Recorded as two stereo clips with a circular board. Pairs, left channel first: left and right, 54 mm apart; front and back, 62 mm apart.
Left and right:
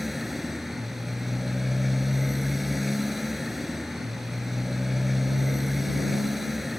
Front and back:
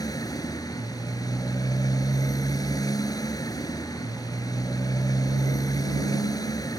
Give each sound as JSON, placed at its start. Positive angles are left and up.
{"t": 0.0, "sound": "a motorcycle", "azimuth_deg": -5}